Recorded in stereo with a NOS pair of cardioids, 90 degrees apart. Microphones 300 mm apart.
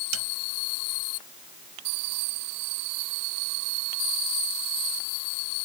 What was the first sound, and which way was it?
A snare drum, 55° right.